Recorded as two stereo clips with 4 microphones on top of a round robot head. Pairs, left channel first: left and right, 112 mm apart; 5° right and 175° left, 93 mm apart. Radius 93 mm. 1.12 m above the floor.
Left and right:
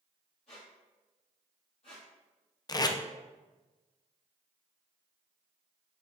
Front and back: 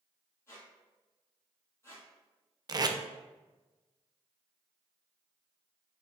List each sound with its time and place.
0.5 s a squeak: 45° left, 1.4 m
2.7 s tape being pulled: 140° left, 0.5 m